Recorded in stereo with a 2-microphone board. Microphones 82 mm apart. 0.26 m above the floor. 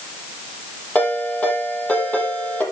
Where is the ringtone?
20° left (ahead or behind), 6 m.